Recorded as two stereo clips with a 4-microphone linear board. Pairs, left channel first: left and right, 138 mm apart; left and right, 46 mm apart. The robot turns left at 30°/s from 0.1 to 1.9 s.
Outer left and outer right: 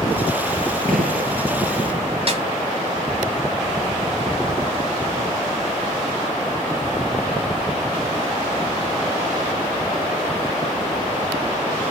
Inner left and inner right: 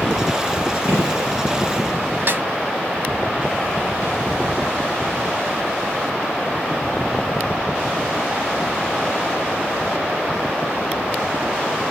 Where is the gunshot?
85° right, 4.5 m; by 1.3 s 80° right, 4.5 m.